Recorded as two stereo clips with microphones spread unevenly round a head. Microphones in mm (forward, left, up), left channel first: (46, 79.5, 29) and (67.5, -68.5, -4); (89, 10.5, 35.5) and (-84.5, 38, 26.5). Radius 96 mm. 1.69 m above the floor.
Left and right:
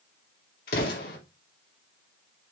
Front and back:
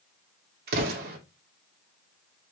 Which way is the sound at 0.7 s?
135° left.